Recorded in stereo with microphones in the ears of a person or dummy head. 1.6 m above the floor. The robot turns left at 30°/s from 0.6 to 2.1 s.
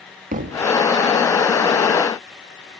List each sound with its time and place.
0.3 s a thud: 45° right (ahead or behind), 1.2 m